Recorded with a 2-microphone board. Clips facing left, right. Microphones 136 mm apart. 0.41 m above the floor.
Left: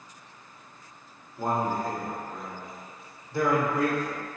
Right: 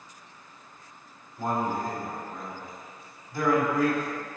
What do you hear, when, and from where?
1.4 s a man speaking: 30° left (ahead or behind), 1.5 m